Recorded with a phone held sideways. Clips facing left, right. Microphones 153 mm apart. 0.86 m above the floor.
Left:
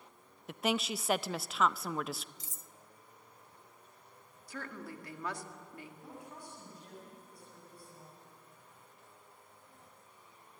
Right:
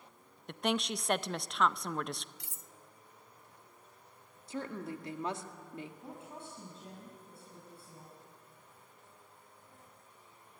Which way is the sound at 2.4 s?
65° right (ahead or behind).